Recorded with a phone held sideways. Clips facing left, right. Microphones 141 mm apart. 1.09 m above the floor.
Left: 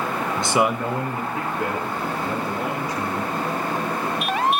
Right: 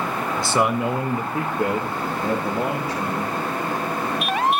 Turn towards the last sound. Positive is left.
turn(degrees=-55)  # may be behind; listen again after turning